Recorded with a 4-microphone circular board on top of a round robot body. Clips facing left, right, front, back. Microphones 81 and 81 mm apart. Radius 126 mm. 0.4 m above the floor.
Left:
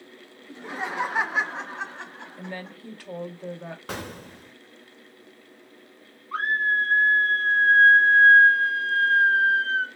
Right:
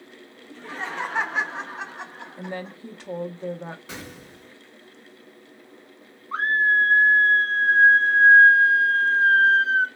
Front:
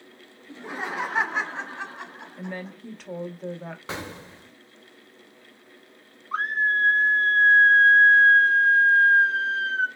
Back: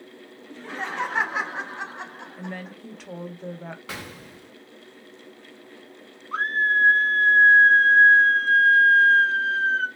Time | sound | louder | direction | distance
0.5 | laughter | left 1 dB, even | 40° left | 1.0 m
2.4 | a woman speaking | right 4 dB, front 1 dB | 95° right | 0.8 m
3.9 | an explosion | left 4 dB, front 3 dB | 65° left | 0.6 m
6.3 | a scream | right 3 dB, back 1 dB | 75° right | 1.0 m